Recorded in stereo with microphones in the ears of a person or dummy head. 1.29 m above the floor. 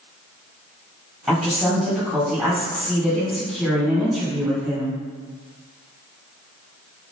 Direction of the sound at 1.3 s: 10° right (ahead or behind).